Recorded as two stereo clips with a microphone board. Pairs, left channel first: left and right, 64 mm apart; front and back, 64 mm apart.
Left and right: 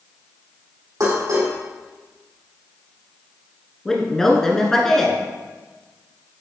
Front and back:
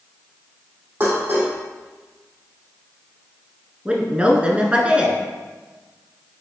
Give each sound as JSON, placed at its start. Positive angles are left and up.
{"t": 1.0, "sound": "dishes clattering", "azimuth_deg": -120, "distance_m": 2.5}
{"t": 3.9, "sound": "a woman speaking", "azimuth_deg": 155, "distance_m": 1.1}